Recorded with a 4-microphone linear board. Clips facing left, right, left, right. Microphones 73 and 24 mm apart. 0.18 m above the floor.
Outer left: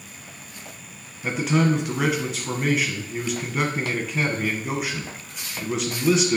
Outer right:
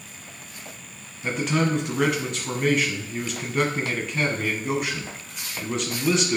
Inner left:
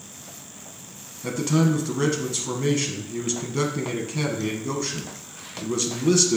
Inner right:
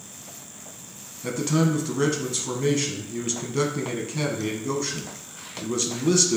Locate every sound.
1.2 s a man speaking: 5° left (ahead or behind), 1.1 m